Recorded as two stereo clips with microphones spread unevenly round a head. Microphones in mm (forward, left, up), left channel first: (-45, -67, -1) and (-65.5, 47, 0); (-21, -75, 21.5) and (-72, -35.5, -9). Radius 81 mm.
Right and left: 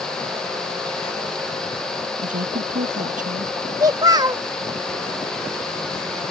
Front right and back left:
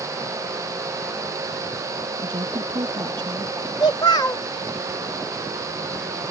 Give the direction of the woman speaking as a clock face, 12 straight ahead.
9 o'clock.